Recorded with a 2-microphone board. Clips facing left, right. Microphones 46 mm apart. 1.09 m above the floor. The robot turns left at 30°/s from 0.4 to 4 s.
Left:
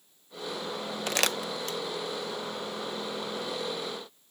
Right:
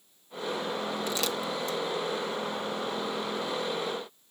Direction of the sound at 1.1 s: 60° left (ahead or behind).